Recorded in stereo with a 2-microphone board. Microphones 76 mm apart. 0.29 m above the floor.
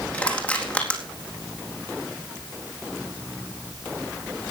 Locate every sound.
0.1 s crushing: 15° left (ahead or behind), 4 m